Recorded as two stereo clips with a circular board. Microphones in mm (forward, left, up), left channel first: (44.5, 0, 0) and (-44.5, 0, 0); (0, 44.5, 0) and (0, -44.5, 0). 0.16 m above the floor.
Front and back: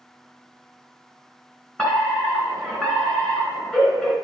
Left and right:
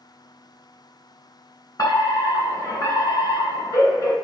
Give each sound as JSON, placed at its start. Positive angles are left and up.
{"t": 1.8, "sound": "a fire alarm", "azimuth_deg": 70, "distance_m": 3.0}